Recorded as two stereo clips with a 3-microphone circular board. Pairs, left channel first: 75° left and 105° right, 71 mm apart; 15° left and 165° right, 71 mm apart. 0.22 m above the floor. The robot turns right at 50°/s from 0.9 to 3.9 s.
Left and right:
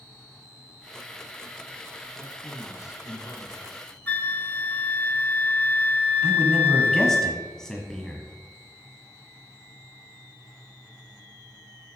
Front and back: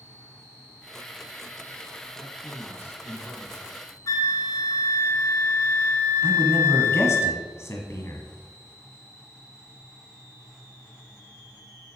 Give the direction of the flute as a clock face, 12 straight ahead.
12 o'clock.